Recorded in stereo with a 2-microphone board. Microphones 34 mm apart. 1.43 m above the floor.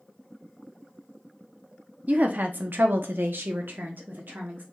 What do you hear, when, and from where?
2.1 s a woman speaking: 45° right (ahead or behind), 0.7 m; by 4.6 s 60° right (ahead or behind), 1.3 m